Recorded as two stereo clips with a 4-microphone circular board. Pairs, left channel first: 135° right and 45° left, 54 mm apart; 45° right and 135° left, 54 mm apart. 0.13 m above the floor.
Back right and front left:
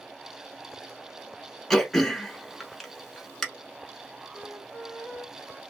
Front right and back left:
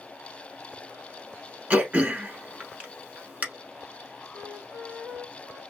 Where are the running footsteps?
I don't hear running footsteps.